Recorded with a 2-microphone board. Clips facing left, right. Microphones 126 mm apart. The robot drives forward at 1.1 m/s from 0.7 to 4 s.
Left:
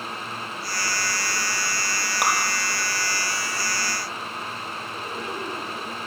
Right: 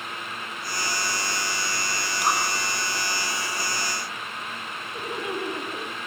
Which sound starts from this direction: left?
Dripping, at 2.2 s.